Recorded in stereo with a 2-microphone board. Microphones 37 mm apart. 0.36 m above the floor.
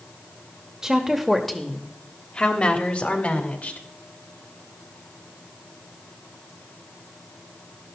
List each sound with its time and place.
0.8 s a woman speaking: 15° right (ahead or behind), 1.0 m; by 3.8 s 45° left (ahead or behind), 1.9 m